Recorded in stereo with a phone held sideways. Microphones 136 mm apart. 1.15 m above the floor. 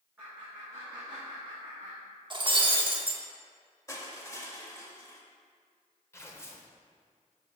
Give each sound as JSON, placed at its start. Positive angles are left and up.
{"t": 0.2, "sound": "laughter", "side_deg": -15, "distance_m": 1.6}
{"t": 2.3, "sound": "breaking glass", "side_deg": -35, "distance_m": 0.8}
{"t": 3.9, "sound": "crushing", "side_deg": 25, "distance_m": 0.9}
{"t": 6.1, "sound": "tearing paper", "side_deg": 20, "distance_m": 0.7}